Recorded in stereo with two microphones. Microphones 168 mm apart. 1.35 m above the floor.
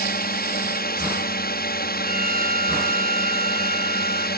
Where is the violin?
55° right (ahead or behind).